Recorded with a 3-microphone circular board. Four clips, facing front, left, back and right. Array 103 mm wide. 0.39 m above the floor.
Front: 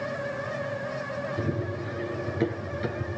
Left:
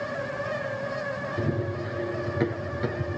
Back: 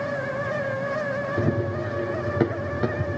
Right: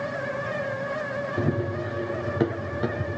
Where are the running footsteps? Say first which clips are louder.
Right 3 dB, back 6 dB; 155° right, 4.5 m; by 3.2 s 165° right, 4.5 m.